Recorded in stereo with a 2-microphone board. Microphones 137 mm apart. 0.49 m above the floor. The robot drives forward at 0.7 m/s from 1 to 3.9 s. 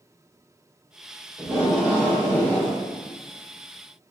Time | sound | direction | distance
1.4 | tape being pulled | 10° right (ahead or behind) | 1.8 m